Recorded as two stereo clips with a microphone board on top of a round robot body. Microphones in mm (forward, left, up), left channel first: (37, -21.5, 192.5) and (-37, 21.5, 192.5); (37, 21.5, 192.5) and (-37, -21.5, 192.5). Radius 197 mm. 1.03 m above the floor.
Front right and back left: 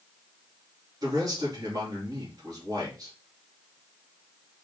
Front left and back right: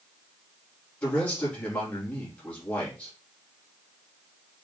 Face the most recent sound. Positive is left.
turn(degrees=105)